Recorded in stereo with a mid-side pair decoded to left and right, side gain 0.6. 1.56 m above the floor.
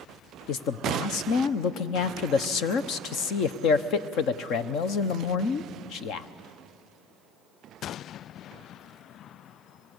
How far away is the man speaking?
About 1.0 m.